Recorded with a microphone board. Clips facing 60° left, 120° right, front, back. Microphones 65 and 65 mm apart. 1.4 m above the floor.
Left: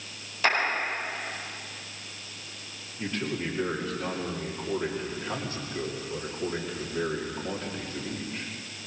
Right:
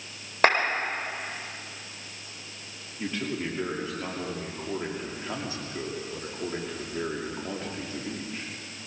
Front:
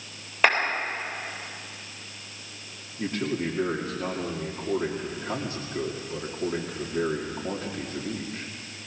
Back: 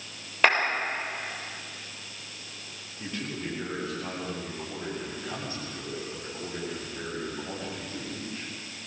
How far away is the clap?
About 4 m.